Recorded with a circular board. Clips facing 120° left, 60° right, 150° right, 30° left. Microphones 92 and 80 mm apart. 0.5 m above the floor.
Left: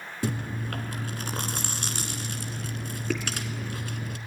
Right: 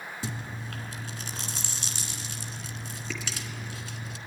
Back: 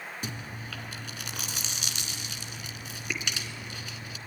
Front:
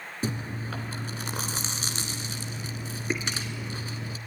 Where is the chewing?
85° left, 1.6 m.